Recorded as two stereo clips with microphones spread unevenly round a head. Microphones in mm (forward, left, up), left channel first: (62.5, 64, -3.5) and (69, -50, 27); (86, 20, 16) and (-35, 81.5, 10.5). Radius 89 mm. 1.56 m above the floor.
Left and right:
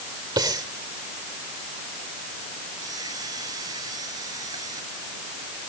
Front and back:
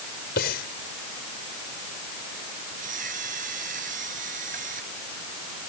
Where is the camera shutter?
155° right.